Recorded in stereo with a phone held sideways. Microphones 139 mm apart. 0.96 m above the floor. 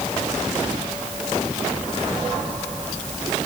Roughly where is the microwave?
I don't hear a microwave.